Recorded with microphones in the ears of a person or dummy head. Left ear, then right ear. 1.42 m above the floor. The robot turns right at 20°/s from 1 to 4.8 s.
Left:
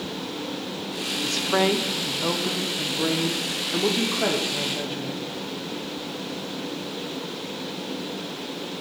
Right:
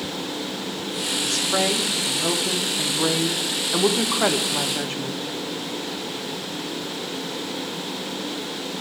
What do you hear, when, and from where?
1.2 s a woman speaking: 165° left, 0.8 m; by 5.2 s 120° right, 0.8 m